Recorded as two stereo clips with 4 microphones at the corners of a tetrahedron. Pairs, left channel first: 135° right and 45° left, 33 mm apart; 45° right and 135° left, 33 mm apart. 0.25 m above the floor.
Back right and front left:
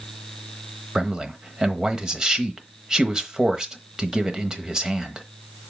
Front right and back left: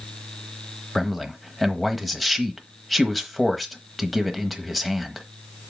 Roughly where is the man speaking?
Ahead left.